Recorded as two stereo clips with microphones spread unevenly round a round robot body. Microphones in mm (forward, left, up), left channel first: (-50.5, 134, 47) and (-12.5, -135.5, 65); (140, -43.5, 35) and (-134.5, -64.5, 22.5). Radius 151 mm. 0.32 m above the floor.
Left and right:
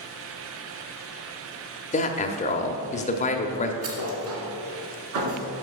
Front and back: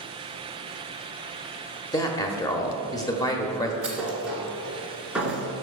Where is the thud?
90° right, 2.0 m.